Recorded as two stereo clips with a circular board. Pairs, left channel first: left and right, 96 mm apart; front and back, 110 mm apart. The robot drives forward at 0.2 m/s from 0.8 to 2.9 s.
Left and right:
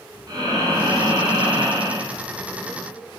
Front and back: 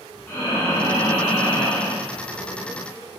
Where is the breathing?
65° right, 1.0 m; by 2.1 s 85° right, 0.9 m.